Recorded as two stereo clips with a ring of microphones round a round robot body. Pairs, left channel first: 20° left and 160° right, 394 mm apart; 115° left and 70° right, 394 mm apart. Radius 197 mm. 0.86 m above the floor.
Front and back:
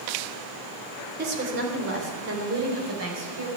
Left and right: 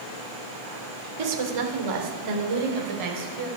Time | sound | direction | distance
1.2 | a woman speaking | 90° right | 2.5 m